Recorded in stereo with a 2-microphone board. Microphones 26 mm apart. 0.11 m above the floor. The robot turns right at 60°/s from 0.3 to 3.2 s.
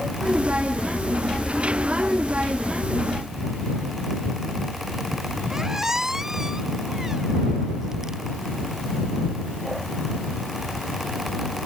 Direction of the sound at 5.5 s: 15° right (ahead or behind).